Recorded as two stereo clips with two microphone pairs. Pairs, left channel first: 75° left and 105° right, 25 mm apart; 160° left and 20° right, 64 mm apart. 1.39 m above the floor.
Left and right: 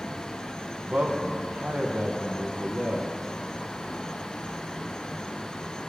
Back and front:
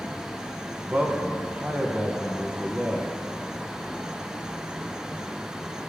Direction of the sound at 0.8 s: 85° right.